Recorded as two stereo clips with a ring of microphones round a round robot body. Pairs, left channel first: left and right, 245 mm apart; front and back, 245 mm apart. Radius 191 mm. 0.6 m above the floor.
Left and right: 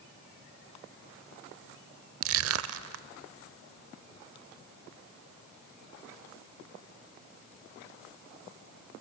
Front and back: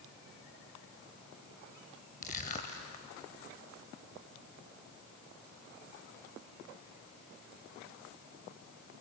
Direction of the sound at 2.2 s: 70° right.